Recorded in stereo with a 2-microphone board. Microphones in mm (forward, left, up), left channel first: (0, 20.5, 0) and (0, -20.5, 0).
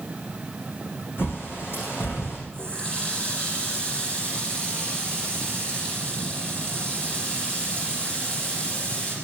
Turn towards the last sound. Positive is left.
turn(degrees=25)  # may be behind; listen again after turning